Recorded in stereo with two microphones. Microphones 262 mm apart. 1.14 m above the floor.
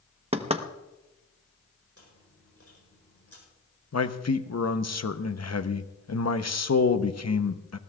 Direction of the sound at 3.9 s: 65° left (ahead or behind).